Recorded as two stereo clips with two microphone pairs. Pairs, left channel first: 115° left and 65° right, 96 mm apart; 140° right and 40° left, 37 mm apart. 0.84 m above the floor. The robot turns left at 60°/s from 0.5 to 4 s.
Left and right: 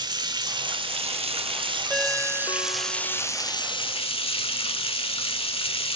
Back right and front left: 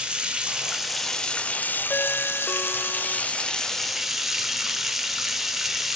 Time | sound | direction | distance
0.0 | running water | 25° right | 1.5 m
1.9 | a ringtone | 165° right | 1.4 m